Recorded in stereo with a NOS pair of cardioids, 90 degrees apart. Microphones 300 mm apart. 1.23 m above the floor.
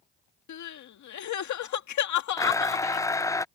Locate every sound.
0.5 s crying: 65° left
2.4 s a blender: 10° left